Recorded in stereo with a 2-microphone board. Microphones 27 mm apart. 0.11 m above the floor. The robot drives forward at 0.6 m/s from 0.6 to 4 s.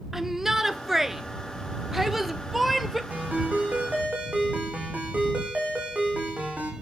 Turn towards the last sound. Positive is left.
turn(degrees=-65)  # may be behind; listen again after turning